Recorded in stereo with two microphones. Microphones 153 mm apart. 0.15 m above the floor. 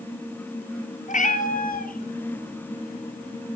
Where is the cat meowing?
55° left (ahead or behind), 1.9 m; by 3.6 s 60° left (ahead or behind), 3 m.